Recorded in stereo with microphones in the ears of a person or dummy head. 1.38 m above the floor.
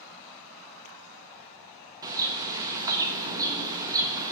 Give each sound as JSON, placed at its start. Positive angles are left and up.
{"t": 2.0, "sound": "a bird", "side_deg": -10, "distance_m": 0.7}